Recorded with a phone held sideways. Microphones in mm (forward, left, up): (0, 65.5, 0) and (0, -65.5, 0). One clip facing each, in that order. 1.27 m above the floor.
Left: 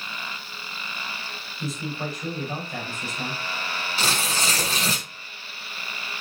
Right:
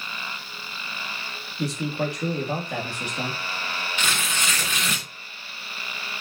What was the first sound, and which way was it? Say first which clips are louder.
A man speaking: right 5 dB; 75° right (ahead or behind).